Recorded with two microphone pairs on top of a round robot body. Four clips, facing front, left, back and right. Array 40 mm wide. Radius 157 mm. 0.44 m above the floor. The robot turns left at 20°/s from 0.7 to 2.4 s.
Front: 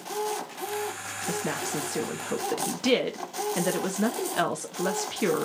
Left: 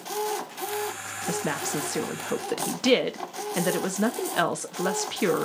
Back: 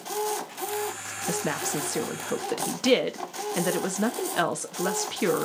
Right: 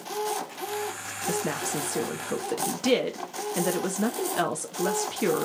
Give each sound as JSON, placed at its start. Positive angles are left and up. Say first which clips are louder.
{"t": 1.3, "sound": "a woman speaking", "louder": "even, back 2 dB", "azimuth_deg": 130, "distance_m": 1.0}